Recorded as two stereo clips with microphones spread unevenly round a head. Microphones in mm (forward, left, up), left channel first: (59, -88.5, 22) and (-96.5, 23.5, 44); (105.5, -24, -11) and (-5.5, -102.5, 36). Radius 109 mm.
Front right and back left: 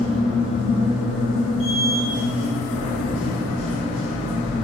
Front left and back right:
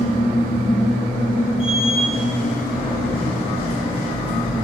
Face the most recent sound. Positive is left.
turn(degrees=15)